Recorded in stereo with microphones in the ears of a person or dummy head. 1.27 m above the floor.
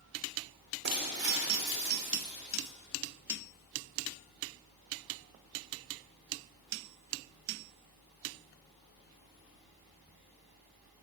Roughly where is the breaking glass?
Right.